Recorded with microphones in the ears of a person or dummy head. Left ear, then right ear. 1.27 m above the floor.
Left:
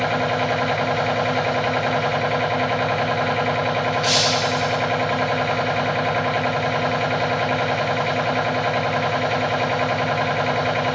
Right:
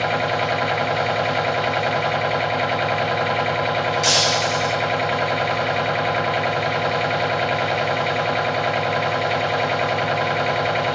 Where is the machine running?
5° right (ahead or behind), 1.4 m.